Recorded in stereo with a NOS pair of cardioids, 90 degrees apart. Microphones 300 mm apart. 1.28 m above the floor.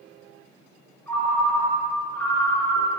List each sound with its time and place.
1.1 s a ringtone: 5° left, 0.5 m